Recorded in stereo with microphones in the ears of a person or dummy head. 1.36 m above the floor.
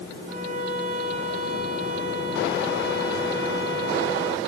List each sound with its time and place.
0.3 s a violin: 45° right (ahead or behind), 3 m